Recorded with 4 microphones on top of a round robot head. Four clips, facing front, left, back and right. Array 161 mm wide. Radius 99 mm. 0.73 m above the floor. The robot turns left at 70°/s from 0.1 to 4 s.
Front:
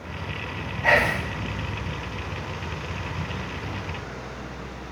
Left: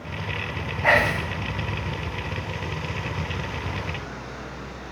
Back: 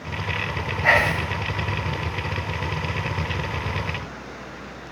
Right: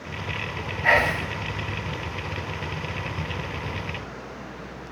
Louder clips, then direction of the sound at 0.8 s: Left 1 dB, back 1 dB; 115° left.